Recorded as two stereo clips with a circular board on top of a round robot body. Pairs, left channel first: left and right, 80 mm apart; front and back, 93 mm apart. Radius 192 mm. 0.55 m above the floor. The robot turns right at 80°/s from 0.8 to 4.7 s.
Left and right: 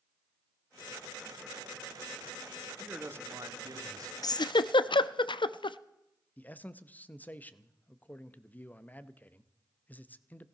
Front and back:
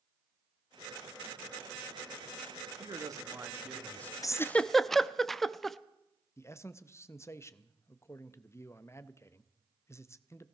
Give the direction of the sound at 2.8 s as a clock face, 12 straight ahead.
6 o'clock.